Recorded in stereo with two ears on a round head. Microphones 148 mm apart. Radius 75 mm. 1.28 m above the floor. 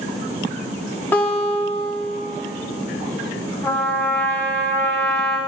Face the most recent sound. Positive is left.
turn(degrees=15)  # may be behind; listen again after turning